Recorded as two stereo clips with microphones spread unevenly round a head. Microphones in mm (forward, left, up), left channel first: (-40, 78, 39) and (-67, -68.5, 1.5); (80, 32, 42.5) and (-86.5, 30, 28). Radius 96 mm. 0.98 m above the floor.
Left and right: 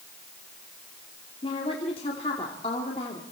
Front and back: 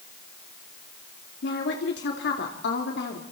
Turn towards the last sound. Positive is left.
turn(degrees=15)